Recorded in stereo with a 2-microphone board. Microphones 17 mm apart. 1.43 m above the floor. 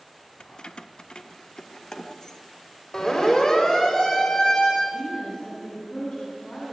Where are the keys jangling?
55° left (ahead or behind), 0.5 m; by 2.4 s 35° left (ahead or behind), 1.3 m.